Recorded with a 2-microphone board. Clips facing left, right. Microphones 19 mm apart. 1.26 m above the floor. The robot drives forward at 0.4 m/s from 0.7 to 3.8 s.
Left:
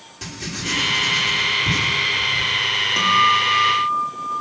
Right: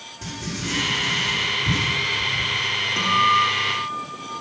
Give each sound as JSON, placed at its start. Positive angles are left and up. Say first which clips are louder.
{"t": 0.2, "sound": "writing", "louder": "left 2 dB", "side_deg": 60, "distance_m": 3.0}
{"t": 3.0, "sound": "a guitar", "louder": "left 2 dB", "side_deg": 30, "distance_m": 3.0}